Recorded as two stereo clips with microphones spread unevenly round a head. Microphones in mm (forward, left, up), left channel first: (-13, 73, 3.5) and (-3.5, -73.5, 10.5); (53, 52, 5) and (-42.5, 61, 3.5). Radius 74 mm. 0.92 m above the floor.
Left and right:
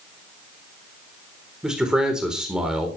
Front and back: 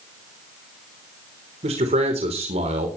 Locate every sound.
1.6 s a man speaking: 170° right, 4 m